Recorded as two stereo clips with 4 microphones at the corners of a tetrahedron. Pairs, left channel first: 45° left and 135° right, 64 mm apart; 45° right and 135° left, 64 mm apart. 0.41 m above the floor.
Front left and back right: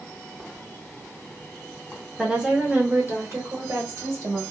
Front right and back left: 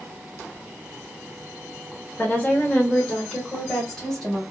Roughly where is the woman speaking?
Right.